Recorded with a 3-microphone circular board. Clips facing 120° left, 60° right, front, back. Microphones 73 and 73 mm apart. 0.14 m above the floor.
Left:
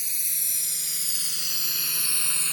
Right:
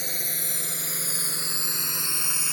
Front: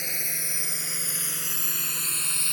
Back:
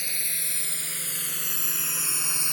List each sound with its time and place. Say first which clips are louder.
0.0 s a drone: right 9 dB, front 2 dB; 65° right; by 2.5 s 125° right